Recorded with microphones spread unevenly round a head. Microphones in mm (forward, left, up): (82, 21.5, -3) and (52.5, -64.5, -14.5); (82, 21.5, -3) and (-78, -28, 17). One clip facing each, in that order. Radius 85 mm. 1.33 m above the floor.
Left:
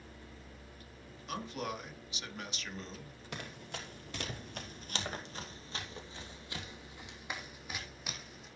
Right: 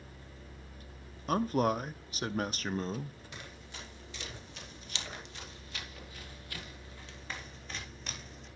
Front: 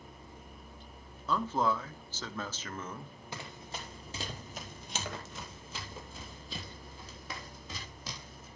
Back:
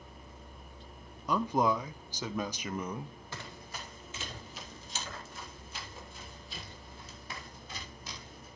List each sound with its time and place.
1.3 s a man speaking: 85° right, 0.7 m
3.3 s running footsteps: 90° left, 2.5 m; by 8.5 s 10° right, 4.5 m